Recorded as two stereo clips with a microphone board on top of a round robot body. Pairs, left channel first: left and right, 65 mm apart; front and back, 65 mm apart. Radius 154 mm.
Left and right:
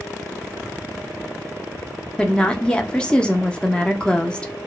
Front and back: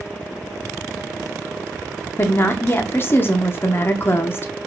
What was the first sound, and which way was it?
A woman speaking, 25° left.